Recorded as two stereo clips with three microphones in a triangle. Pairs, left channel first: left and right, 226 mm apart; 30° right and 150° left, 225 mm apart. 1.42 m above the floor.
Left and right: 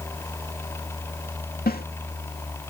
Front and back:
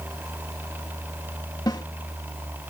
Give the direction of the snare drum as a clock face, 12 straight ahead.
11 o'clock.